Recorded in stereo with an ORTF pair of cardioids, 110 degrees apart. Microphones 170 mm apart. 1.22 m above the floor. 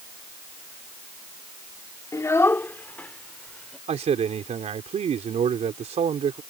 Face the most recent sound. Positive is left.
turn(degrees=-40)